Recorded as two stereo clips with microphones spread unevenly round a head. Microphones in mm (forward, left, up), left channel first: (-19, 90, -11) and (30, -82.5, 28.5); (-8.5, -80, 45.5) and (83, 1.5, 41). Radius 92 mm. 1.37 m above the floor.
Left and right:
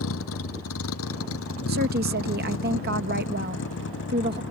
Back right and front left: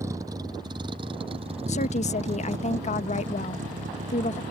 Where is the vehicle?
115° left; by 4.5 s 80° left.